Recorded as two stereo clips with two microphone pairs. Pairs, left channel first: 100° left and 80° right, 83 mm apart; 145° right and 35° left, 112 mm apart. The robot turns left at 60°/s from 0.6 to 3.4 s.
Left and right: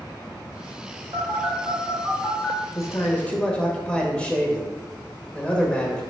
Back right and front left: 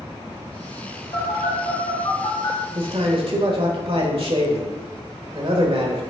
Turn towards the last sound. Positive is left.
turn(degrees=25)